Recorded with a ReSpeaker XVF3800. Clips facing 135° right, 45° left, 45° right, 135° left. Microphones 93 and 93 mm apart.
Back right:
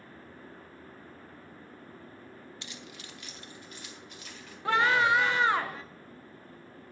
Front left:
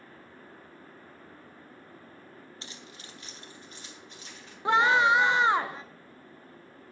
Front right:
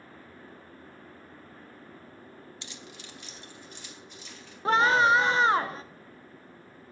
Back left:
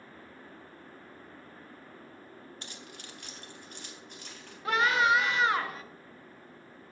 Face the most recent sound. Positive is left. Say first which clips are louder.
# front left 3 dB, front right 4 dB
turn(degrees=-10)